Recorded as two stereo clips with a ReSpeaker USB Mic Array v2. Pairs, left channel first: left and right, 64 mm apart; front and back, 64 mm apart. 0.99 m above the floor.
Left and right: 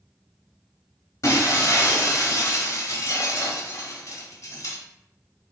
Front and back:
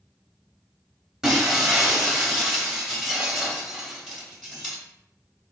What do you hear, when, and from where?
1.2 s breaking glass: 95° left, 1.2 m